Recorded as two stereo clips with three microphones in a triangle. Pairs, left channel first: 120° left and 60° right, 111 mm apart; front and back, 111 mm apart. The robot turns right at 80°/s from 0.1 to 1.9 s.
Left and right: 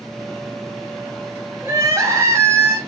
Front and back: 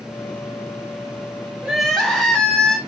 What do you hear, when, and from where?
1.6 s crying: 105° right, 0.9 m; by 2.8 s 85° right, 0.9 m